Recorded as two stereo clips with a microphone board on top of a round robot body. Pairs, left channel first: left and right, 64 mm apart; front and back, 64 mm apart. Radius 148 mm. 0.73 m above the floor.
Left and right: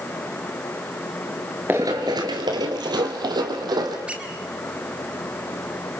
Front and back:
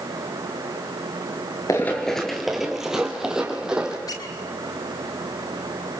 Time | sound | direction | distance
1.7 | running footsteps | 35° right | 0.7 m
4.1 | a squeak | 20° right | 2.5 m